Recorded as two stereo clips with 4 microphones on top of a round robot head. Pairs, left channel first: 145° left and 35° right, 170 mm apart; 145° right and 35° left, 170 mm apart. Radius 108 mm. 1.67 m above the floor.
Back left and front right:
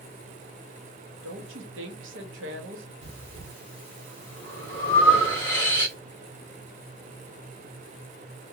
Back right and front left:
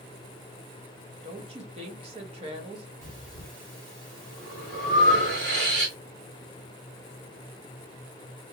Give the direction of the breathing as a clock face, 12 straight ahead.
10 o'clock.